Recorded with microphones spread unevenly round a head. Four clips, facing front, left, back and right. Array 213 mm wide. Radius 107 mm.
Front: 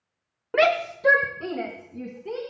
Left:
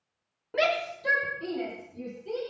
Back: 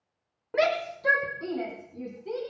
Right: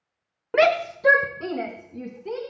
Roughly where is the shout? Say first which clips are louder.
Right 8 dB, front 4 dB; right.